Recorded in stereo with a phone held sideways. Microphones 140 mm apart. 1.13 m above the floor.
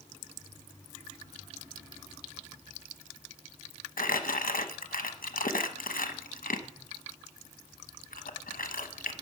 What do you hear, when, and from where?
4.0 s crumpling: 85° left, 0.9 m